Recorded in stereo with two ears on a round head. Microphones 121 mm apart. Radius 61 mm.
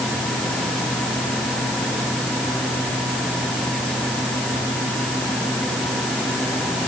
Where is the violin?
No violin in this recording.